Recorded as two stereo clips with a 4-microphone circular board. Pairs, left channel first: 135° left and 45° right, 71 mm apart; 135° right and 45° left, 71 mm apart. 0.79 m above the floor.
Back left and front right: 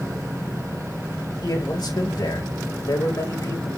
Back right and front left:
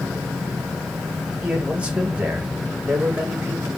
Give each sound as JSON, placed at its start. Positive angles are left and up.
{"t": 1.4, "sound": "a man speaking", "azimuth_deg": 120, "distance_m": 4.0}